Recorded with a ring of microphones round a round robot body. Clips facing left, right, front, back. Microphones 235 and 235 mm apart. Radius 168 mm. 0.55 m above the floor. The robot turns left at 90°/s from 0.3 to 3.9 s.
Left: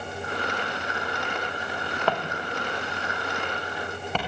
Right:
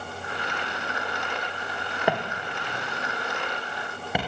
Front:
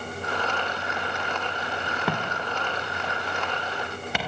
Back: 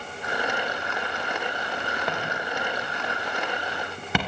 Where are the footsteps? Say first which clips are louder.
Right 2 dB, front 1 dB; 10° right, 3.5 m; by 4.2 s 175° right, 5.5 m.